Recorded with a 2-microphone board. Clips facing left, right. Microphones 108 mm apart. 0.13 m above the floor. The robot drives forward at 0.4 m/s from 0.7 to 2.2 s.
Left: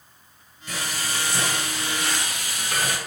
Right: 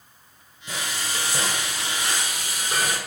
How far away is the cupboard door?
No cupboard door in this recording.